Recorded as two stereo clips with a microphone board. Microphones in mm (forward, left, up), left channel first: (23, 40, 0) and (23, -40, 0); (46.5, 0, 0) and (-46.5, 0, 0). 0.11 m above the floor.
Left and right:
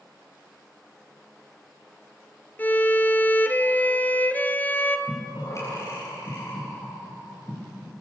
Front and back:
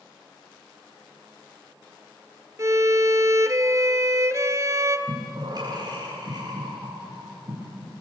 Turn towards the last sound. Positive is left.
turn(degrees=140)